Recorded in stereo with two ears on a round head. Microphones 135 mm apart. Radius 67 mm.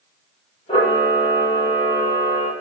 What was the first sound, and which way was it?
A camera shutter, 40° left (ahead or behind).